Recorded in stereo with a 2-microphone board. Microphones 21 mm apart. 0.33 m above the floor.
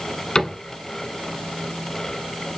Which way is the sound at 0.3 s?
40° left (ahead or behind).